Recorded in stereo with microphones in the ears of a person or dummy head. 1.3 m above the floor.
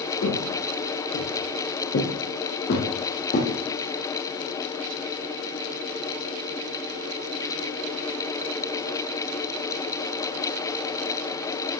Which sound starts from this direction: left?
Footsteps, at 0.2 s.